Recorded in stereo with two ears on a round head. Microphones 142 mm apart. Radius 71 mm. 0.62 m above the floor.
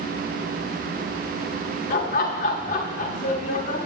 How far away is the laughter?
About 1.2 m.